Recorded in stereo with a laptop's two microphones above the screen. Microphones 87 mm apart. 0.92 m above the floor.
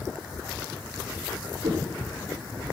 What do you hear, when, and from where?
1.6 s footsteps: 75° right (ahead or behind), 3.5 m; by 2.7 s 70° right (ahead or behind), 2.5 m